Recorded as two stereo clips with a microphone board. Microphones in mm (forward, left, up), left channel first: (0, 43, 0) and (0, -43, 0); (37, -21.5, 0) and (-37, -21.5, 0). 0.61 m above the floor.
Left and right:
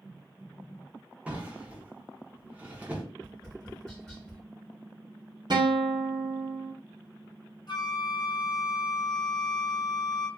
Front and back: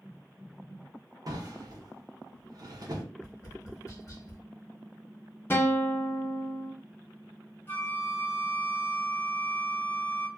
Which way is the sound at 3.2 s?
15° left.